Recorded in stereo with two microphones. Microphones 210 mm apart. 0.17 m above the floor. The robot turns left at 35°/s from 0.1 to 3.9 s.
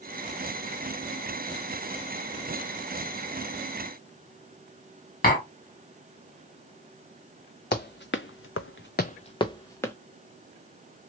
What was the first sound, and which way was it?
Tapping, 45° left (ahead or behind).